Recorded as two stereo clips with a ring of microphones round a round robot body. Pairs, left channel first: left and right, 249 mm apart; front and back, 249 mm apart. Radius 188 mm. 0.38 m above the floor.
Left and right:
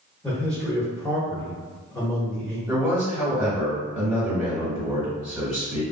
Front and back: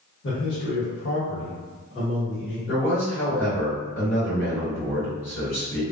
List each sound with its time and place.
0.2 s a man speaking: 5° left, 1.3 m
2.7 s a man speaking: straight ahead, 1.8 m